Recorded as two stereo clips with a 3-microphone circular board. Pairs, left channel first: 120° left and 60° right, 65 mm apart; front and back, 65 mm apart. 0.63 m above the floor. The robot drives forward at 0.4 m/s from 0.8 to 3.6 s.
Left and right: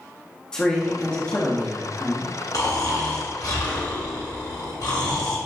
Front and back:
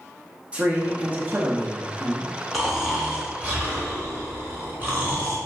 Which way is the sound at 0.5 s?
175° left.